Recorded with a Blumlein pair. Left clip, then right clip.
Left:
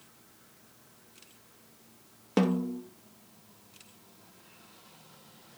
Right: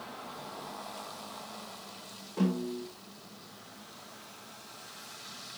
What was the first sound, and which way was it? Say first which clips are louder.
A snare drum: left 4 dB; 40° left.